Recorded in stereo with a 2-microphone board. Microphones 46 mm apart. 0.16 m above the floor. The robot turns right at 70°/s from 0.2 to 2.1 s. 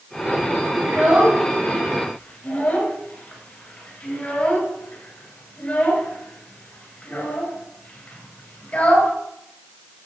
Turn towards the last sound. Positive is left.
turn(degrees=35)  # may be behind; listen again after turning